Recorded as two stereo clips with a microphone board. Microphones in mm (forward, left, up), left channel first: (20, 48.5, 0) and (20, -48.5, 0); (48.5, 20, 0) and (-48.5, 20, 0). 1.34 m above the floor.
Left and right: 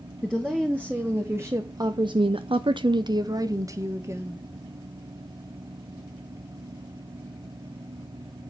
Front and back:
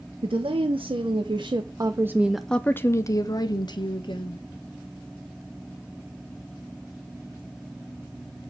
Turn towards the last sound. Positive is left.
turn(degrees=-30)